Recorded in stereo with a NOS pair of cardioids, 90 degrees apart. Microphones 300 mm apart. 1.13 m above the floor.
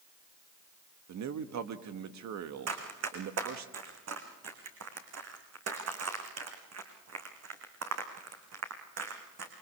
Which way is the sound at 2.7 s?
55° right.